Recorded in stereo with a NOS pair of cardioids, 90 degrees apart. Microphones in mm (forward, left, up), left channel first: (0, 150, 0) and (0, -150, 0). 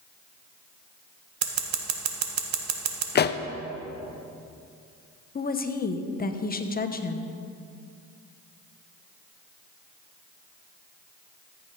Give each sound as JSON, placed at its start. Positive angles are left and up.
{"t": 1.4, "sound": "scissors", "azimuth_deg": -65, "distance_m": 1.3}
{"t": 3.1, "sound": "a pop", "azimuth_deg": 35, "distance_m": 0.6}
{"t": 5.3, "sound": "a woman speaking", "azimuth_deg": 30, "distance_m": 1.0}